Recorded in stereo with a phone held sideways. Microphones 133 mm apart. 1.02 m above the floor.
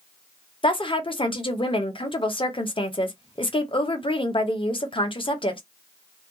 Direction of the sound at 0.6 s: 40° left (ahead or behind).